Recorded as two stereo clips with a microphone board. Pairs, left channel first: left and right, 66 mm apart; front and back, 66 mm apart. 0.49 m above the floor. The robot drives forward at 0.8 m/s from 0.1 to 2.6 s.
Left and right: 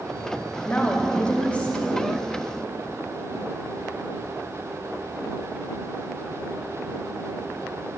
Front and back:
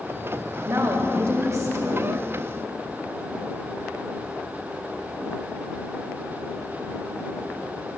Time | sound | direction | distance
0.6 | a woman speaking | 150° left | 2.5 m